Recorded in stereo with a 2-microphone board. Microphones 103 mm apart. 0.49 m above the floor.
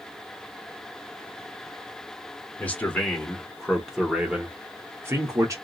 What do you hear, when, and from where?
2.6 s a man speaking: 15° left (ahead or behind), 1.3 m; by 5.5 s 30° right (ahead or behind), 1.0 m